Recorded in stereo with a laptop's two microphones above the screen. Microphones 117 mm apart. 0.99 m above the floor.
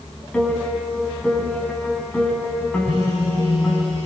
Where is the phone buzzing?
65° left (ahead or behind), 8 m.